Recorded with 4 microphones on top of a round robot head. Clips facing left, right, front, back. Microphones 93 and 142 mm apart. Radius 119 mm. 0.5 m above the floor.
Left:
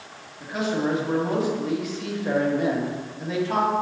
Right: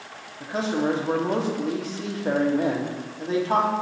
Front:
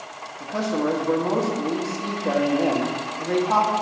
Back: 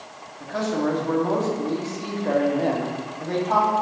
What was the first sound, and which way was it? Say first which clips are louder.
A man speaking: even, even; 70° right.